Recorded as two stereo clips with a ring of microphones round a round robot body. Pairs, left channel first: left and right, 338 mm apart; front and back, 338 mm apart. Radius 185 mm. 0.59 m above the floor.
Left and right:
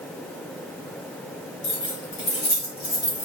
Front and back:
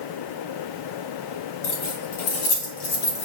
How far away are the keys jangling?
About 3.5 m.